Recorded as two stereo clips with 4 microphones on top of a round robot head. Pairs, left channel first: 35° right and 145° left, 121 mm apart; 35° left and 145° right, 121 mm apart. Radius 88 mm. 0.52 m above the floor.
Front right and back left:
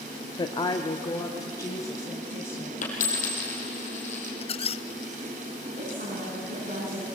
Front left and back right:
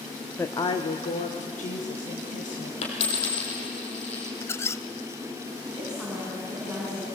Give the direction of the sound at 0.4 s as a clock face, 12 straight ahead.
1 o'clock.